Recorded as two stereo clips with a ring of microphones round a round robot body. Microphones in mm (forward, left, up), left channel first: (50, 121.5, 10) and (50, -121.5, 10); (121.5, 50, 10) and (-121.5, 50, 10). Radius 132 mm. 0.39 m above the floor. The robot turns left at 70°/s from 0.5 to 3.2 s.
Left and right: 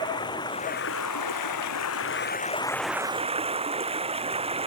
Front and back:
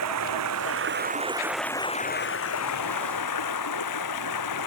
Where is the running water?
165° left; by 4.7 s 25° right.